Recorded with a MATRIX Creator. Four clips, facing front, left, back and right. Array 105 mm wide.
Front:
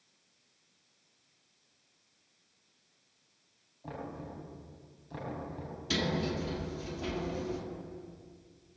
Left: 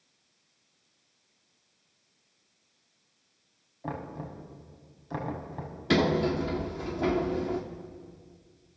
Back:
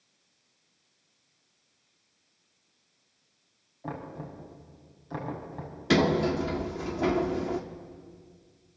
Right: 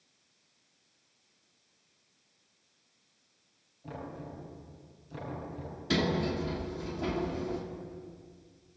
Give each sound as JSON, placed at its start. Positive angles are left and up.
{"t": 3.8, "sound": "knocking", "azimuth_deg": 120, "distance_m": 5.0}
{"t": 5.9, "sound": "a sliding door", "azimuth_deg": 150, "distance_m": 1.8}